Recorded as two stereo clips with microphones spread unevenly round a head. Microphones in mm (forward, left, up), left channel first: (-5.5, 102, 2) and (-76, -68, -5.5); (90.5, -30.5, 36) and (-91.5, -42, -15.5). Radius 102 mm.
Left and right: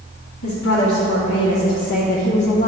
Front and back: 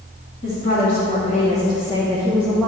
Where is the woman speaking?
55° left, 1.9 m; by 2.7 s 80° left, 0.7 m.